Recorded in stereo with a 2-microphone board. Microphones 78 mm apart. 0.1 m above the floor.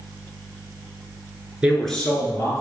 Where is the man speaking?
10° right (ahead or behind), 1.3 m; by 2.6 s 40° left (ahead or behind), 1.7 m.